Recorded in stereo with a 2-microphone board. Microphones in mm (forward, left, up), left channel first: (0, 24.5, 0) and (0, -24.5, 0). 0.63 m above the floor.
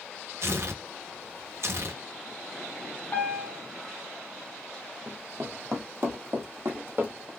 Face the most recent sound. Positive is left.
turn(degrees=-50)  # may be behind; listen again after turning